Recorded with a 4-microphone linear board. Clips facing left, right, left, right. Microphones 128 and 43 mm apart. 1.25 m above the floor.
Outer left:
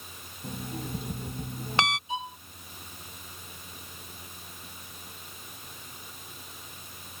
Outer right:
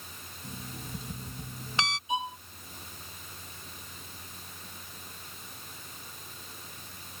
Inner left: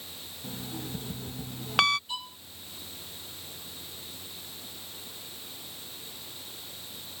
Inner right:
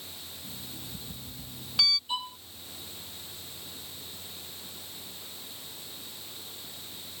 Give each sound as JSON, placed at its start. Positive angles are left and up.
{"t": 0.4, "sound": "an alarm clock", "side_deg": 60}
{"t": 2.1, "sound": "a violin", "side_deg": -15}